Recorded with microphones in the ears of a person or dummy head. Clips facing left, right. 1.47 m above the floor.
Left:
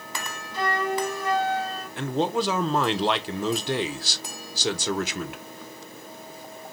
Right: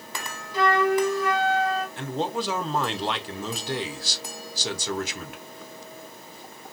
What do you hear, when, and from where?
0.5 s a flute: 70° right (ahead or behind), 1.0 m
2.0 s a man speaking: 55° left (ahead or behind), 0.7 m